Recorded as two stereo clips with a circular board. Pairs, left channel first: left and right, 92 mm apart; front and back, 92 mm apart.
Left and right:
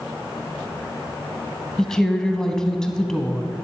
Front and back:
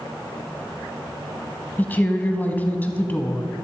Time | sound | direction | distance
1.8 | a woman speaking | 20° left | 1.0 m